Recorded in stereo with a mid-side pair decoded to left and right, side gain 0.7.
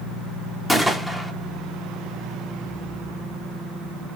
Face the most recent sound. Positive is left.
turn(degrees=0)